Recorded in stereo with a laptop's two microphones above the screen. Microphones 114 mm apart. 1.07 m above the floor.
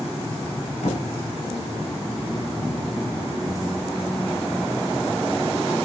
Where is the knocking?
85° left, 6.5 m.